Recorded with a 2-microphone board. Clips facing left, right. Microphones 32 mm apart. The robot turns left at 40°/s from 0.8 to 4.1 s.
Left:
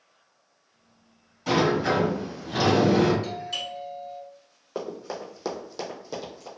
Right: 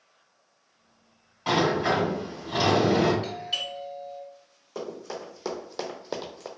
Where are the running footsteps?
30° left (ahead or behind), 1.2 m; by 6.5 s 65° right (ahead or behind), 0.8 m.